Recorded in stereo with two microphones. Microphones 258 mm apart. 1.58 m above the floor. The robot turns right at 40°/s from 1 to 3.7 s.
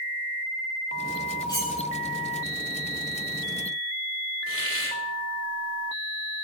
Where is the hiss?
55° left (ahead or behind), 3.5 m.